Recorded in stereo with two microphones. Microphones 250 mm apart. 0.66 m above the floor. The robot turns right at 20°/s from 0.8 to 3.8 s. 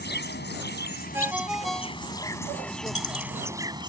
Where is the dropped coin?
55° left (ahead or behind); by 3.5 s 65° left (ahead or behind).